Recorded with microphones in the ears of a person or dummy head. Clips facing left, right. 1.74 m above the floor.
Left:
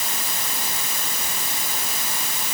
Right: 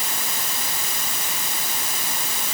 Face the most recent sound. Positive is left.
No sound to turn to.